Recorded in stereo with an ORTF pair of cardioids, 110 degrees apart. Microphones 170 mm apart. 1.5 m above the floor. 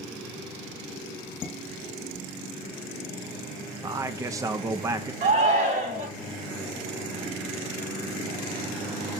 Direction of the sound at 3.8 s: 20° right.